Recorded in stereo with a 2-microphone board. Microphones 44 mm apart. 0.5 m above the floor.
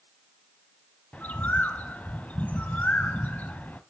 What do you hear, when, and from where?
1.1 s a bird: 35° left (ahead or behind), 0.7 m